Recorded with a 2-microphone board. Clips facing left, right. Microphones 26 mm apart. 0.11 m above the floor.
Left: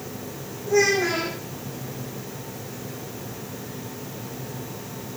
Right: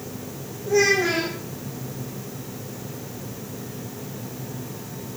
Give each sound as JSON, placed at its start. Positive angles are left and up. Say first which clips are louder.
{"t": 0.7, "sound": "a child speaking", "louder": "right 1 dB", "side_deg": 0, "distance_m": 3.0}